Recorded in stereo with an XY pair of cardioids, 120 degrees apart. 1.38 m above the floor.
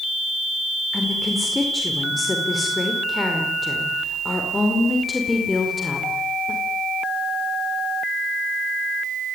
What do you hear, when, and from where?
0.9 s a woman speaking: 20° left, 4.5 m